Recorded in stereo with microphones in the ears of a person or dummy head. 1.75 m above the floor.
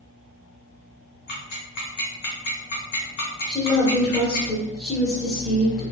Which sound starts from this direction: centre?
A woman speaking, at 3.5 s.